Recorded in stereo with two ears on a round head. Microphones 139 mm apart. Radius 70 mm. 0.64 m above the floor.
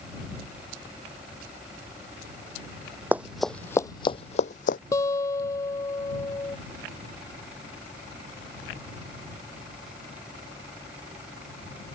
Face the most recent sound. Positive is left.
turn(degrees=20)  # may be behind; listen again after turning